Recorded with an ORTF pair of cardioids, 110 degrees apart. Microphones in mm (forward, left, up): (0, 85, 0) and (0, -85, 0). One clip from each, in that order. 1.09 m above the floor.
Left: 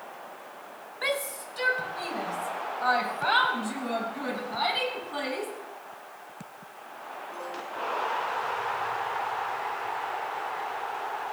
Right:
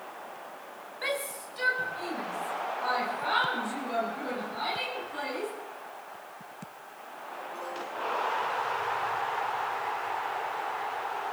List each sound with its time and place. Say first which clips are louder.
1.0 s a shout: left 3 dB; 20° left, 4 m; by 5.5 s 55° left, 8.5 m